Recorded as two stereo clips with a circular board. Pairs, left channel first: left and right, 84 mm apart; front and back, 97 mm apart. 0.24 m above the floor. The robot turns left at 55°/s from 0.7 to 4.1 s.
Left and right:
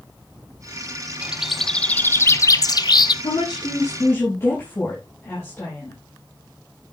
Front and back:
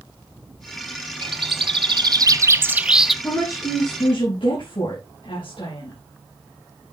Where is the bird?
165° right, 0.6 m; by 3.1 s 90° left, 0.6 m.